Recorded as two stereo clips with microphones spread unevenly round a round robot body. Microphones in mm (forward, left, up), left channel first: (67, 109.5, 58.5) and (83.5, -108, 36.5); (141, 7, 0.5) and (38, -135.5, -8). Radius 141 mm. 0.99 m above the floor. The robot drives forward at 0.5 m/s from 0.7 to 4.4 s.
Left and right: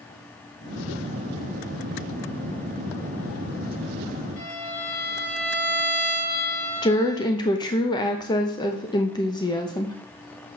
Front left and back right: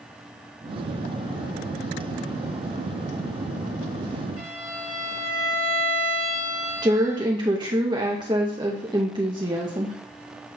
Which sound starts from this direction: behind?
A woman speaking, at 6.8 s.